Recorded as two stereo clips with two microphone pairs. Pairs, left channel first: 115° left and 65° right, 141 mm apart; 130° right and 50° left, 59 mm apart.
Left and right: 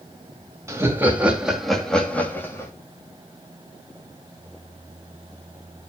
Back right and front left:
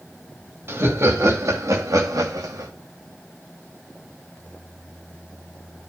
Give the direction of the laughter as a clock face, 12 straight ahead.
12 o'clock.